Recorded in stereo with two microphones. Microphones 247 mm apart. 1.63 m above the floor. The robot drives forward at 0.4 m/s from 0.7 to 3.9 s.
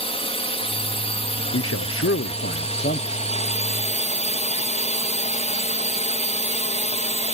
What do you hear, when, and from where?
0.0 s a drone: 25° left (ahead or behind)
1.5 s a man speaking: 70° left (ahead or behind); by 3.1 s 40° left (ahead or behind)